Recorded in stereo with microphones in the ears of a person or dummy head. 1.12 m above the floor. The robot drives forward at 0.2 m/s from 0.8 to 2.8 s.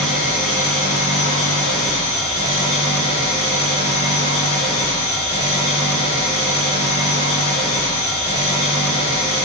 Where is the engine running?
35° left (ahead or behind), 0.9 m; by 9.4 s 25° left (ahead or behind), 1.3 m.